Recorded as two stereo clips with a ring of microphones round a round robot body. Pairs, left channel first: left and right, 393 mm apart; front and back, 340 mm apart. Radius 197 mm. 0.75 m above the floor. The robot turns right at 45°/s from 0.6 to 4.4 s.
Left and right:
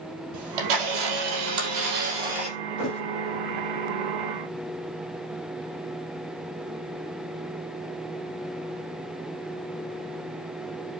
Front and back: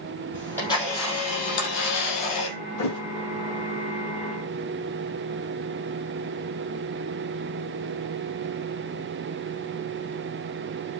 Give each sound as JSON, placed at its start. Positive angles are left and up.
{"t": 0.3, "sound": "a camera shutter", "azimuth_deg": -85, "distance_m": 4.5}
{"t": 2.8, "sound": "a thud", "azimuth_deg": 30, "distance_m": 7.0}